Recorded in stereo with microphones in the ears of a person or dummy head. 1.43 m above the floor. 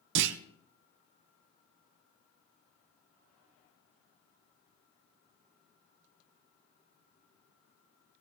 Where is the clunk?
70° right (ahead or behind), 0.6 m.